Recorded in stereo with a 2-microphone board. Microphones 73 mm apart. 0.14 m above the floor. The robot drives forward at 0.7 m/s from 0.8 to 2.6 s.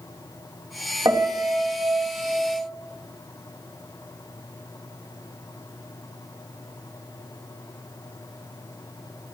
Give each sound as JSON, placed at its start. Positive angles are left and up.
{"t": 1.1, "sound": "a piano", "side_deg": -45, "distance_m": 3.5}